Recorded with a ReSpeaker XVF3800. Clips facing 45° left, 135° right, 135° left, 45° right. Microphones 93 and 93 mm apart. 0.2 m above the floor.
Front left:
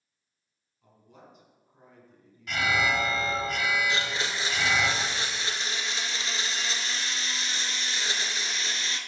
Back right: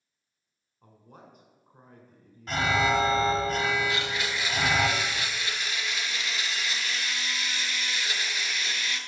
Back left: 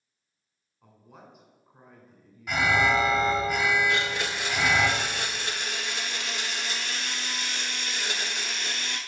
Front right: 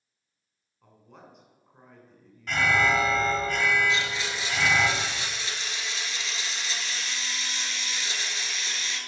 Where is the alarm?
155° right, 0.9 m.